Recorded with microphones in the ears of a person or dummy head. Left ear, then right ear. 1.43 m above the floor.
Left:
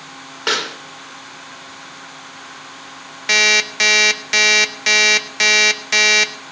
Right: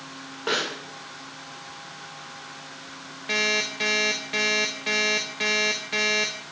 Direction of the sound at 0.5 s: 70° left (ahead or behind).